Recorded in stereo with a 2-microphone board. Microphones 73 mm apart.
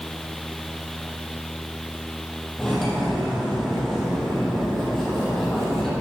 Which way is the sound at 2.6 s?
5° left (ahead or behind).